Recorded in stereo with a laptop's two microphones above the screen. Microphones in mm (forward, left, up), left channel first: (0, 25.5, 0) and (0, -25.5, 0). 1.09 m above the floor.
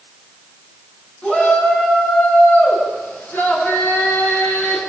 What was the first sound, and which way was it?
A shout, 20° left (ahead or behind).